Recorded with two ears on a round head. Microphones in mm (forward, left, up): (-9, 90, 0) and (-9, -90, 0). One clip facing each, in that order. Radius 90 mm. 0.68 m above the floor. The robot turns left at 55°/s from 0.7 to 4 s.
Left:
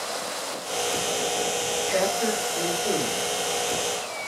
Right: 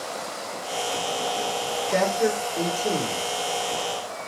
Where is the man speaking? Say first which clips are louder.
Right 3 dB; 110° right, 2.5 m; by 3.2 s 175° left, 2.5 m.